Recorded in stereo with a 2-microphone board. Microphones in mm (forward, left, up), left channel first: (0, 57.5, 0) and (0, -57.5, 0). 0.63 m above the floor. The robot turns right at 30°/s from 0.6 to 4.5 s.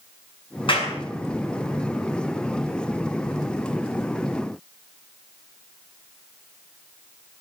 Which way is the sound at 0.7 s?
55° left (ahead or behind).